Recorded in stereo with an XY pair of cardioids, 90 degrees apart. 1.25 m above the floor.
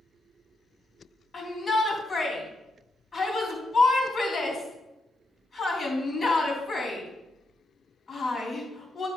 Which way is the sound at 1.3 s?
40° left.